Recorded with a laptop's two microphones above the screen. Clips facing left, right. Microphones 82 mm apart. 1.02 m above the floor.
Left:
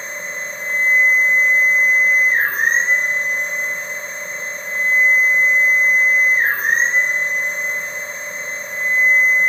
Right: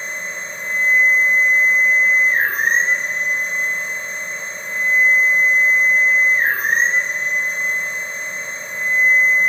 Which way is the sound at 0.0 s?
35° left (ahead or behind).